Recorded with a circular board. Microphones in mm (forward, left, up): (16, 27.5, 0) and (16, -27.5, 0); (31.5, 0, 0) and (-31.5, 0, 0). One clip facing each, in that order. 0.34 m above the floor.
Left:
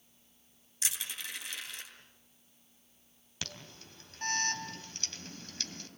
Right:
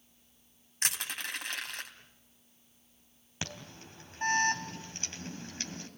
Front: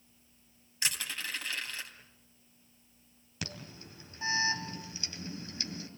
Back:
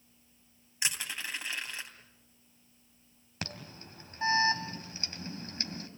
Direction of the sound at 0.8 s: 110° right.